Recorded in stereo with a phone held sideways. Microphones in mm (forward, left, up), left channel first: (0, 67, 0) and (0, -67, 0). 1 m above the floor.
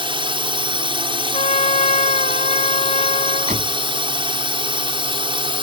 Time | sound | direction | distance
0.0 | a drone | 40° right (ahead or behind) | ?
1.3 | a trumpet | 65° left (ahead or behind) | ?
3.5 | a door slam | 70° right (ahead or behind) | ?